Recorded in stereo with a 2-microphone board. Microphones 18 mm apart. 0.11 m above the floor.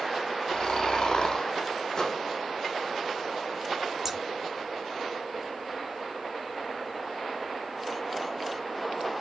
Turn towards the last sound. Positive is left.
turn(degrees=-20)  # may be behind; listen again after turning